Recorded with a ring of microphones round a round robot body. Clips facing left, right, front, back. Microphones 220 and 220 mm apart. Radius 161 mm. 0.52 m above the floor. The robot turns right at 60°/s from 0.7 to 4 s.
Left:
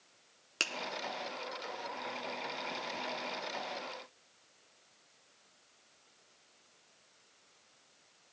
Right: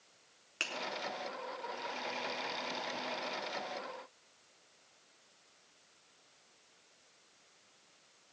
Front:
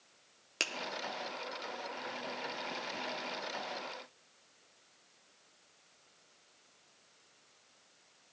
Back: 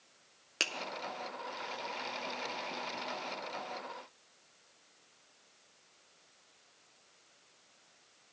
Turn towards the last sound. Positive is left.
turn(degrees=-70)